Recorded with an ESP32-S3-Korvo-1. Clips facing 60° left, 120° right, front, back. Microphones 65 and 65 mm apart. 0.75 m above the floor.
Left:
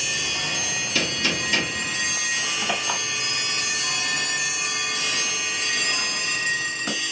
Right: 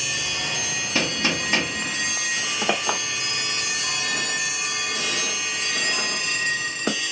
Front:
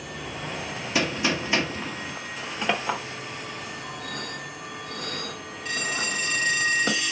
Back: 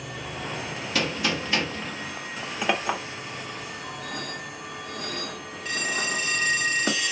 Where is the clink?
100° right, 1.4 m.